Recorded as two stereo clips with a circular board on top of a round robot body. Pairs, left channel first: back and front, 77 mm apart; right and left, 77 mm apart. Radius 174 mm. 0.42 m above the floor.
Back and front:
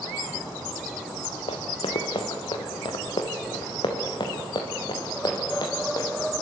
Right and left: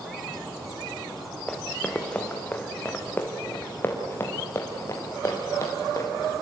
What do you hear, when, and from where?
1.5 s running footsteps: 175° right, 2 m; by 6.3 s 145° right, 4.5 m